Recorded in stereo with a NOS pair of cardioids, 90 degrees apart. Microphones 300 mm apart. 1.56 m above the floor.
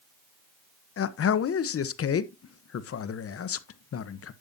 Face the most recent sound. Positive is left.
turn(degrees=50)